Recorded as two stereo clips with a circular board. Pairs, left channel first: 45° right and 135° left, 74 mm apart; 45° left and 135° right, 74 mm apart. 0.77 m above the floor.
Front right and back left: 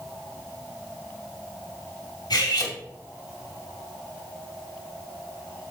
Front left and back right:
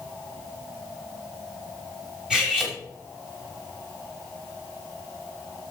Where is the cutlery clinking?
55° right, 3 m.